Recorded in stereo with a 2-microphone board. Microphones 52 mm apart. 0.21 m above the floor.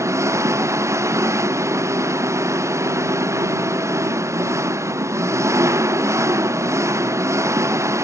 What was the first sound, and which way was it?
An engine running, 65° right (ahead or behind).